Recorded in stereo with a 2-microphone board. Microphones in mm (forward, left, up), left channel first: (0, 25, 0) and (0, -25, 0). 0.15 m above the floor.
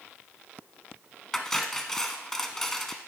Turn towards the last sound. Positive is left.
turn(degrees=5)  # may be behind; listen again after turning